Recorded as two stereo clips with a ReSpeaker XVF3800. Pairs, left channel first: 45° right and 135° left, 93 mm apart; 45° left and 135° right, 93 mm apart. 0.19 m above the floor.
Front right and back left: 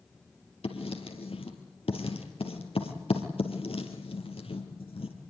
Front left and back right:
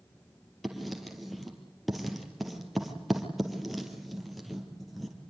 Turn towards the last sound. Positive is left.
turn(degrees=-45)